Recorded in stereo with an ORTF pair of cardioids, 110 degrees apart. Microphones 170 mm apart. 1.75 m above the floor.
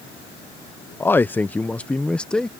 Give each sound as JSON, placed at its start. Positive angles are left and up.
{"t": 1.0, "sound": "a man speaking", "azimuth_deg": 15}